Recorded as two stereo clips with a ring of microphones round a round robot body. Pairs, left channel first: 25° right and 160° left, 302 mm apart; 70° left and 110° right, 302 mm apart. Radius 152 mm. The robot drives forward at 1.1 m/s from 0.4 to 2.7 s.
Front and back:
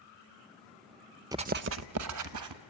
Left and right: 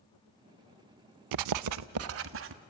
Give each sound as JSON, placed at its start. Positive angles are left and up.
{"t": 1.3, "sound": "writing", "azimuth_deg": -125, "distance_m": 0.5}